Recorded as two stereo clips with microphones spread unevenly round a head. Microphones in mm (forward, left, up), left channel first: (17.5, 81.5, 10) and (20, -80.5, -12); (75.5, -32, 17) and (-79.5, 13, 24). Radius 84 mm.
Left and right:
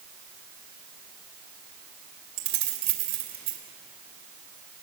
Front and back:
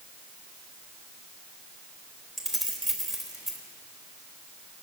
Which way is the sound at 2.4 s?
105° right.